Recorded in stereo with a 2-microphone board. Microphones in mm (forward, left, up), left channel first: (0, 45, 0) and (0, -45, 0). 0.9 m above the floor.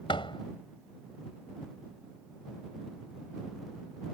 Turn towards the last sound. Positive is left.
turn(degrees=80)